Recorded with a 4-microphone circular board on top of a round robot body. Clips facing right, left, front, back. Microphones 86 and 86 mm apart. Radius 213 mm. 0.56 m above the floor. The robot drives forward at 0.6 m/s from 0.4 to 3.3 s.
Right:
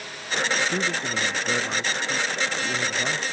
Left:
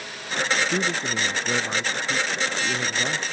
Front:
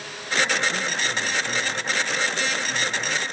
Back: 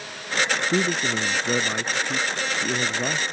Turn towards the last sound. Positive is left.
turn(degrees=180)